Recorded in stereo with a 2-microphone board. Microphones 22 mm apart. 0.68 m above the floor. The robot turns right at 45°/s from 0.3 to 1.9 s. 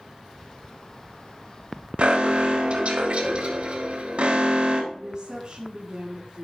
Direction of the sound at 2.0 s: 65° right (ahead or behind).